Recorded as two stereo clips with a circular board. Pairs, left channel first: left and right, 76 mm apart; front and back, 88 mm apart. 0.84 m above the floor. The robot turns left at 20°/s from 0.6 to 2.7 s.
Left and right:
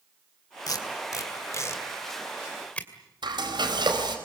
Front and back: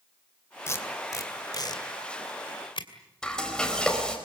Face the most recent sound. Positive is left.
turn(degrees=-80)